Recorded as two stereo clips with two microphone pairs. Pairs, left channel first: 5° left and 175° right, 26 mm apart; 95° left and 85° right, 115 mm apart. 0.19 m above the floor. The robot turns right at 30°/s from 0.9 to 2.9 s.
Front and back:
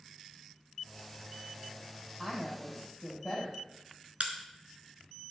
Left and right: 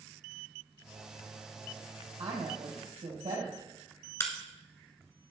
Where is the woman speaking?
80° right, 3.5 m; by 3.6 s 60° right, 3.5 m.